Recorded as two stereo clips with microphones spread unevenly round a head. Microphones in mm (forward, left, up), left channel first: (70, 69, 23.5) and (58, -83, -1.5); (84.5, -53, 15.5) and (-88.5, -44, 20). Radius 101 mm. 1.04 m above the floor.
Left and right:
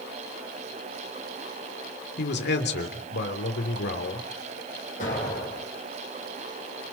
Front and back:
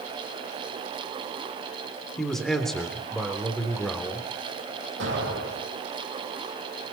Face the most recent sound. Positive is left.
turn(degrees=140)